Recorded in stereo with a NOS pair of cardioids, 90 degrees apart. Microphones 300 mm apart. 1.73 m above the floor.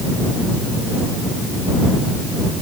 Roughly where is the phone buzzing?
No phone buzzing in this recording.